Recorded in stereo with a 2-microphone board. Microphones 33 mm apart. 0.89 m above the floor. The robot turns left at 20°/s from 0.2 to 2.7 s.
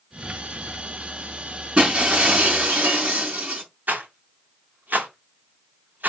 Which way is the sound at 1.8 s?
35° right (ahead or behind).